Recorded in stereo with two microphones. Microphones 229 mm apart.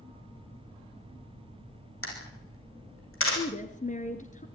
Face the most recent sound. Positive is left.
turn(degrees=35)  # may be behind; listen again after turning